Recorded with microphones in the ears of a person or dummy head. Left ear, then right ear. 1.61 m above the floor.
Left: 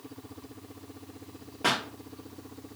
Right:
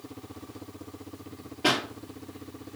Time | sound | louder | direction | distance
1.6 | a pop | right 2 dB | 40° left (ahead or behind) | 2.5 m